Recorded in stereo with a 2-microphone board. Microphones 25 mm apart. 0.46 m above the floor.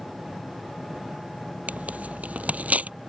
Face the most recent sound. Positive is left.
turn(degrees=-75)  # may be behind; listen again after turning